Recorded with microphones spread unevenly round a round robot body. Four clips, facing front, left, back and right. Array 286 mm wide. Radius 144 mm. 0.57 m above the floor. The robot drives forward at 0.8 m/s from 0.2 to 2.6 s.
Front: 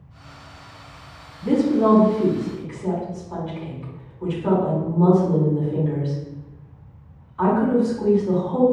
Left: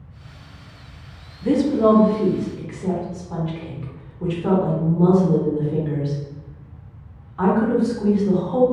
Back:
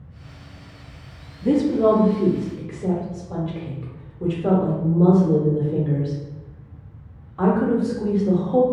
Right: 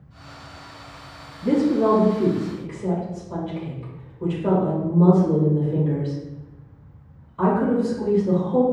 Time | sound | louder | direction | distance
1.4 | a woman speaking | left 2 dB, even | 145° left | 0.9 m